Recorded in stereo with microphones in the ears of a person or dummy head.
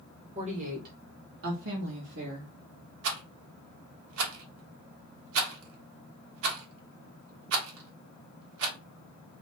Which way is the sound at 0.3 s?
30° right (ahead or behind).